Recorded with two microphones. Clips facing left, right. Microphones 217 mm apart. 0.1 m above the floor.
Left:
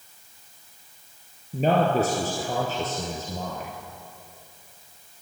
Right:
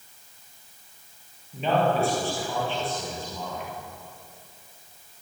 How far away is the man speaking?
About 2 m.